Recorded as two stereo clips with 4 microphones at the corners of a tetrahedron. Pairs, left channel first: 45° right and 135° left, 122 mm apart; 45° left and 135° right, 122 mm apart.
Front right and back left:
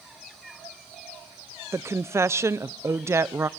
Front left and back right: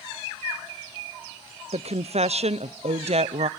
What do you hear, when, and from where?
1.7 s a woman speaking: 160° right, 0.9 m